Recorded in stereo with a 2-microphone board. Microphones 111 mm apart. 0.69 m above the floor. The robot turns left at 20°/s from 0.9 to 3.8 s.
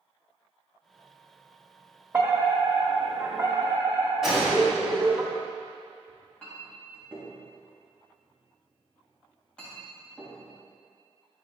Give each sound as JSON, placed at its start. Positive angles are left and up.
{"t": 2.1, "sound": "a fire alarm", "side_deg": -15, "distance_m": 1.5}
{"t": 4.2, "sound": "a gunshot", "side_deg": 0, "distance_m": 3.0}
{"t": 6.1, "sound": "a clink", "side_deg": 10, "distance_m": 2.5}